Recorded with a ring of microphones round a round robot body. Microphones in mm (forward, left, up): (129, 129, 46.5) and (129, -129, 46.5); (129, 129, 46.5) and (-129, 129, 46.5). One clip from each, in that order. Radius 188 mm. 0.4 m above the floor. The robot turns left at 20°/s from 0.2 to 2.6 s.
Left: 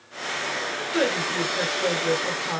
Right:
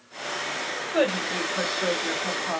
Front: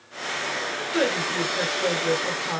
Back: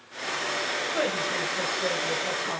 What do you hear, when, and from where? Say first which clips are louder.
0.9 s a woman speaking: even, front 6 dB; 75° right, 1.9 m; by 2.6 s 110° right, 1.9 m